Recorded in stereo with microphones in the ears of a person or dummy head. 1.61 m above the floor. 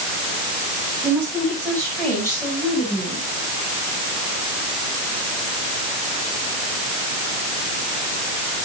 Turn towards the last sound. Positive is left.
turn(degrees=15)  # may be behind; listen again after turning